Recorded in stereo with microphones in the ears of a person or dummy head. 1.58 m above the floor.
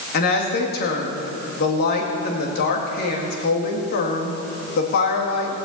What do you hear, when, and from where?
0.1 s a woman speaking: 60° left (ahead or behind), 2 m